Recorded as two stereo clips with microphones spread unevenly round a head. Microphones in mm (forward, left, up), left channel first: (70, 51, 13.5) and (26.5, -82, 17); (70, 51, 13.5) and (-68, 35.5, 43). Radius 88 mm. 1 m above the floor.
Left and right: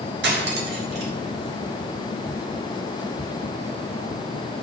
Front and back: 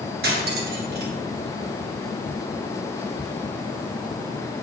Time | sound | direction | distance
0.2 | cutlery clinking | 135° right | 1.5 m